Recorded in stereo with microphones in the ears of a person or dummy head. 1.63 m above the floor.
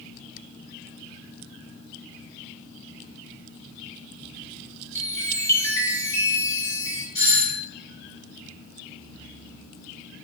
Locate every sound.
5.0 s a chime: 25° left (ahead or behind), 0.8 m
7.2 s a doorbell: 35° left (ahead or behind), 2.0 m